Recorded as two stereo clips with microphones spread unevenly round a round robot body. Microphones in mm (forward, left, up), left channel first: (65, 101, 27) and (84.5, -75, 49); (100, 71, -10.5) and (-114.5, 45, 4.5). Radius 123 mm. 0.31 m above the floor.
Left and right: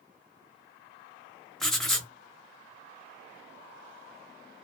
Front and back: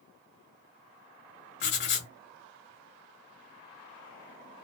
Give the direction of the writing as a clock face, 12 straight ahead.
12 o'clock.